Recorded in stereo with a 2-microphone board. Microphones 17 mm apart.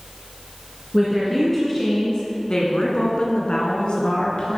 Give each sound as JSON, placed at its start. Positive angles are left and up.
{"t": 0.9, "sound": "a woman speaking", "side_deg": 0, "distance_m": 2.5}